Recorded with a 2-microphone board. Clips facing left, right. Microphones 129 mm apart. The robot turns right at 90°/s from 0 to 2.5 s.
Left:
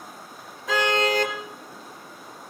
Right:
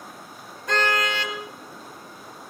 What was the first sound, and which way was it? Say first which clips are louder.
A car horn: left 2 dB; straight ahead.